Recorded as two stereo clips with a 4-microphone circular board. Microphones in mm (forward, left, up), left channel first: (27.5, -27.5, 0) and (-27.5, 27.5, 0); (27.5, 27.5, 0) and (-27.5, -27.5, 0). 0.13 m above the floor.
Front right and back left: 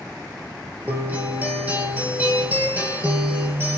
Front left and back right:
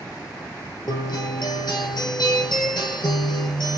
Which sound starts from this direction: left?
A guitar, at 0.9 s.